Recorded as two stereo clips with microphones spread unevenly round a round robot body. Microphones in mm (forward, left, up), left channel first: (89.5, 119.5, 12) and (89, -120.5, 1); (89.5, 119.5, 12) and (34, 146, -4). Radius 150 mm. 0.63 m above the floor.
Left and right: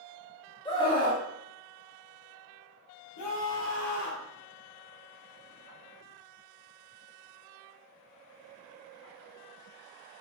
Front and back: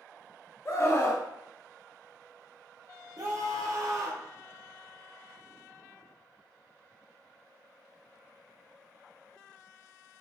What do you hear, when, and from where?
0.7 s a scream: 20° left, 1.7 m
3.2 s a scream: 130° left, 2 m